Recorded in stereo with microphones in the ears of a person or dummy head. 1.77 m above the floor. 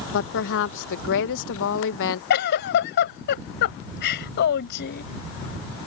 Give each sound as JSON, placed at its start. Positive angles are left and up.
{"t": 0.1, "sound": "a woman speaking", "side_deg": 65}
{"t": 2.3, "sound": "a giggle", "side_deg": 60}